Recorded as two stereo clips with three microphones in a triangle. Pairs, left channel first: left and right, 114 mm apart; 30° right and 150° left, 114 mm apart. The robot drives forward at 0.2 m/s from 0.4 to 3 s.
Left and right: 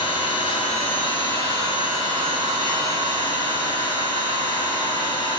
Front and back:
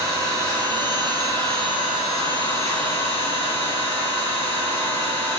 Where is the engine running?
105° left, 0.9 m; by 5.4 s 135° left, 1.1 m.